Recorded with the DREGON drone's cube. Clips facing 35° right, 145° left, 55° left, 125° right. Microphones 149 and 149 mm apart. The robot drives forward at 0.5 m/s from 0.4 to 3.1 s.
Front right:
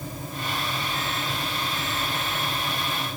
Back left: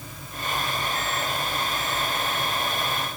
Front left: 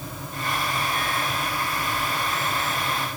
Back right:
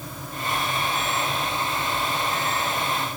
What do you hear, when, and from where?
Only background noise.